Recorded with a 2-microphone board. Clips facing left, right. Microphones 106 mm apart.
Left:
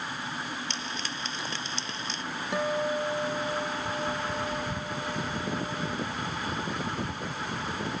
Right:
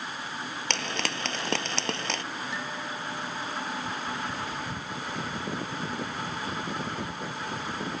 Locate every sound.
0.7 s frying: 65° right (ahead or behind)
2.5 s a guitar: 60° left (ahead or behind)